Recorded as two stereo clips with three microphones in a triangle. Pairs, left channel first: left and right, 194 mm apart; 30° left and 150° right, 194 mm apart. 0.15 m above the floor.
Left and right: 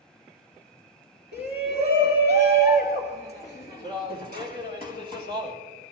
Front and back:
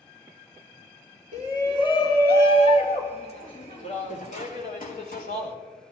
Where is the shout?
95° left, 3 m; by 5.5 s 60° left, 4 m.